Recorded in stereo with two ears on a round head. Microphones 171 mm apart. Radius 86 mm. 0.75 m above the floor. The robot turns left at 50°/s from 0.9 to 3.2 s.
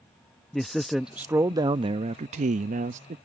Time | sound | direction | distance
0.5 | a man speaking | straight ahead | ?